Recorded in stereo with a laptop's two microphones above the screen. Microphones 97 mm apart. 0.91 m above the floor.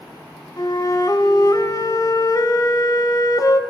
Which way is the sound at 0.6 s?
40° left (ahead or behind).